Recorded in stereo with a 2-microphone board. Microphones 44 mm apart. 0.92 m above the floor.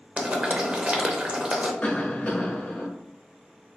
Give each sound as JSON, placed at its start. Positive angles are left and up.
{"t": 0.2, "sound": "boiling", "side_deg": -25, "distance_m": 0.6}
{"t": 1.8, "sound": "a cough", "side_deg": 40, "distance_m": 1.1}